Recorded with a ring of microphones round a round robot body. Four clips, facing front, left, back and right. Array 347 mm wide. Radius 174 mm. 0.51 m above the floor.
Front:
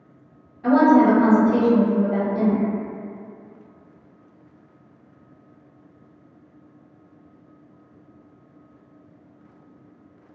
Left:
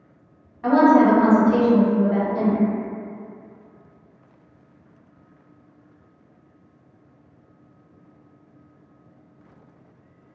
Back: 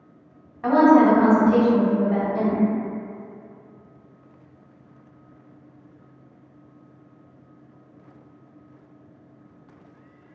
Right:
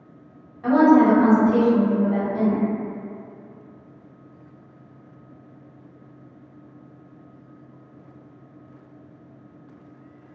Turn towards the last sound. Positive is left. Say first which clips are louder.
# even, even
turn(degrees=160)